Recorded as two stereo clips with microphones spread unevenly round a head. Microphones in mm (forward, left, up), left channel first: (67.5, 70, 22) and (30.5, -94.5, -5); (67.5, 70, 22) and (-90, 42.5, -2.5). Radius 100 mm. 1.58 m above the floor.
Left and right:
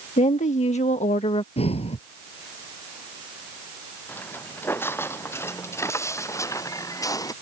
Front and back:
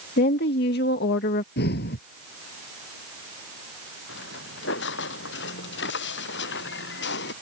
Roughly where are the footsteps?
Ahead.